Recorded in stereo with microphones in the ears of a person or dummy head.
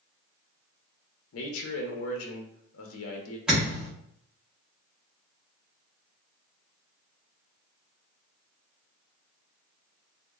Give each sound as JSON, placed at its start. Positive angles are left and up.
{"t": 1.3, "sound": "a man speaking", "side_deg": 75, "distance_m": 0.6}
{"t": 3.5, "sound": "a thud", "side_deg": -5, "distance_m": 1.3}